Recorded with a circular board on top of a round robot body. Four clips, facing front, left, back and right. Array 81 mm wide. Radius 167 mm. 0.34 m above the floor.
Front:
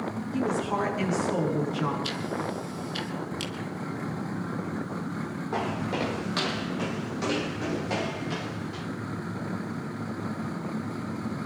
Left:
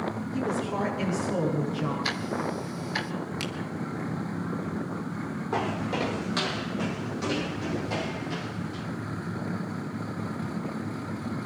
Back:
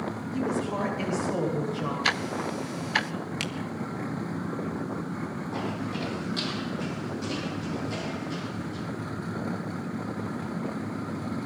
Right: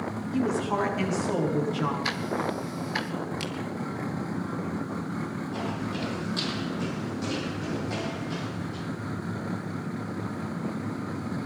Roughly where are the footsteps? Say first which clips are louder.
Left 6 dB, front 5 dB; ahead left.